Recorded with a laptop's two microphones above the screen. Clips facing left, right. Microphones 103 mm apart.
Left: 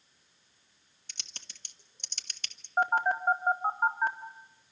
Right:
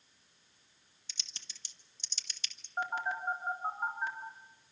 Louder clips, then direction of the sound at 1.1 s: Left 3 dB; 55° left (ahead or behind).